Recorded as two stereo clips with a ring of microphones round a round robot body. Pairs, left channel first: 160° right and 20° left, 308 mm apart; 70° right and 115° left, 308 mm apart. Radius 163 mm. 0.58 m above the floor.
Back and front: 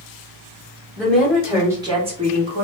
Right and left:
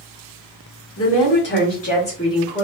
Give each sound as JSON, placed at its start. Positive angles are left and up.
{"t": 1.0, "sound": "a woman speaking", "azimuth_deg": -75, "distance_m": 1.6}